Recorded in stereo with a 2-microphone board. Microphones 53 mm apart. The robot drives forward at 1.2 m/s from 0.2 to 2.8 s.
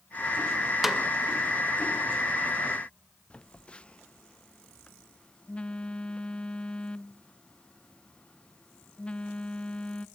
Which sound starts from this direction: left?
A phone buzzing, at 3.3 s.